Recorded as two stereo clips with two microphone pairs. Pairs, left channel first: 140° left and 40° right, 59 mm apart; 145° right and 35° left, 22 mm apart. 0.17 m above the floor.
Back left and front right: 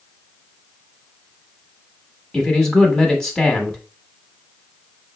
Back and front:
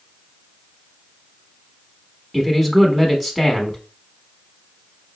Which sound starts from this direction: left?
A man speaking, at 2.3 s.